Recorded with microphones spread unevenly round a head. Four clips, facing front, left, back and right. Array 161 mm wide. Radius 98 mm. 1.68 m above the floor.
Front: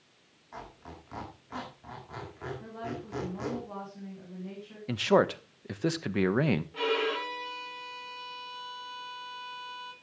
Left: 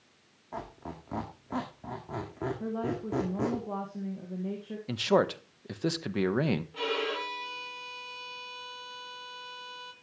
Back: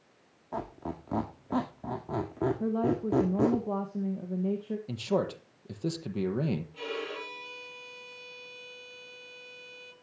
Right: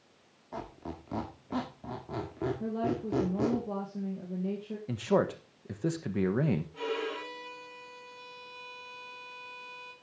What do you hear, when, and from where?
0.5 s a squeak: 175° right, 1.7 m
2.6 s a woman speaking: 170° right, 1.8 m
4.9 s a man speaking: 30° left, 1.2 m
6.7 s a violin: 35° left, 3 m